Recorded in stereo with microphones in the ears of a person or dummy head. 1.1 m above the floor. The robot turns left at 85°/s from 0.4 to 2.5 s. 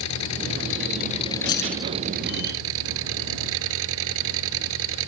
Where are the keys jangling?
25° left; by 1.9 s 10° right.